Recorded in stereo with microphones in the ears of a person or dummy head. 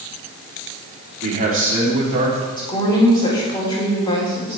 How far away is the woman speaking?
About 3.5 m.